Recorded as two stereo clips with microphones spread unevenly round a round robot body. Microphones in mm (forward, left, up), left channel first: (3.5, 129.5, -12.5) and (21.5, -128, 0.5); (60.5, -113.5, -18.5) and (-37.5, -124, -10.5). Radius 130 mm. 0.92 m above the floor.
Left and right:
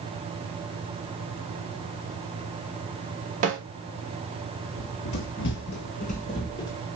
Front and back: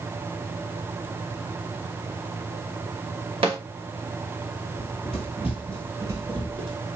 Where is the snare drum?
145° right, 2.5 m.